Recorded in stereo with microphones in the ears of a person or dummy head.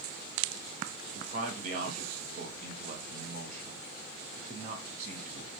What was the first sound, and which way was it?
A man speaking, 40° right (ahead or behind).